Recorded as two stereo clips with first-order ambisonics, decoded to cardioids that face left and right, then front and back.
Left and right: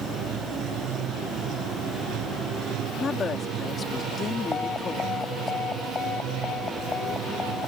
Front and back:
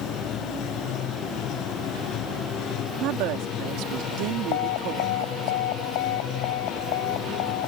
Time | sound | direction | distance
0.0 | running water | 45° right | ?
3.0 | a woman speaking | 155° left | ?
4.5 | an alarm | 15° left | ?